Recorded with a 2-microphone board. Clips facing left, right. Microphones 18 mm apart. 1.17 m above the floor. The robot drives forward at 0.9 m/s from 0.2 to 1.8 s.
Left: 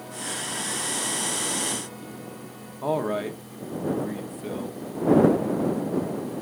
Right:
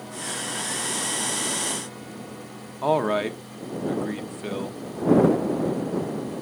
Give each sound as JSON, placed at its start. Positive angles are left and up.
{"t": 2.8, "sound": "a man speaking", "side_deg": -35, "distance_m": 1.0}